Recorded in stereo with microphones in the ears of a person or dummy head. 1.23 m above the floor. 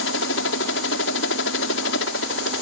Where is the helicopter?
65° left (ahead or behind).